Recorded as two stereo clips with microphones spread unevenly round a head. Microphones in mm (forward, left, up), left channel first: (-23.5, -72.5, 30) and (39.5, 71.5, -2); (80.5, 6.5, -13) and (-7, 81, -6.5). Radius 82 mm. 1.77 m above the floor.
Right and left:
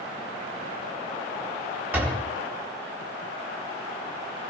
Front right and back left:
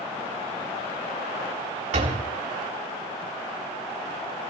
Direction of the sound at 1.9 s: 150° left.